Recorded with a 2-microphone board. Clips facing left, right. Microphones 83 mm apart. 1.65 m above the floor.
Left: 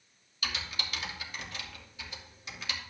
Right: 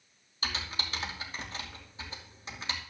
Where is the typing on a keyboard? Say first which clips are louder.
Right 1 dB; 35° right (ahead or behind), 2.5 m.